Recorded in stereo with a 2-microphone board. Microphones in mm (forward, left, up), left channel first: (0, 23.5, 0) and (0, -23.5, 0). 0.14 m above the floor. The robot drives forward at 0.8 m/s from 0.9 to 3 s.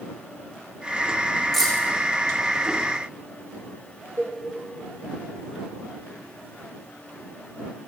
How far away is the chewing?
I don't hear chewing.